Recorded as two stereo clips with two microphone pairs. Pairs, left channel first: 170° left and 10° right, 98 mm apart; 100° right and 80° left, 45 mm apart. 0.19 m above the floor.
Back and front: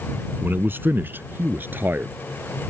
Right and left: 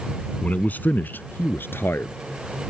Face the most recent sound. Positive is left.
turn(degrees=-80)